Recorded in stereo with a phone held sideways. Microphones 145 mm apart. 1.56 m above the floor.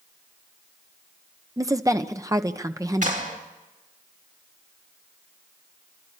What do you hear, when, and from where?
1.6 s a woman speaking: 25° right (ahead or behind), 1.2 m
3.0 s a clap: 65° right (ahead or behind), 4.5 m